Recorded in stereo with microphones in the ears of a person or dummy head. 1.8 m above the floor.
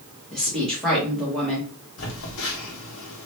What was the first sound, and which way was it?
A woman speaking, 5° left (ahead or behind).